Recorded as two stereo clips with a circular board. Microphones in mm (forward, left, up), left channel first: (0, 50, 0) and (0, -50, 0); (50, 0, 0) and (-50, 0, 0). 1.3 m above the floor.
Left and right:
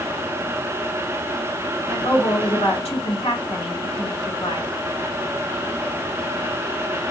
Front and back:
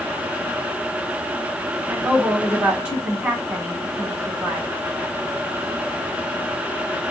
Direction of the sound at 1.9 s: 100° left.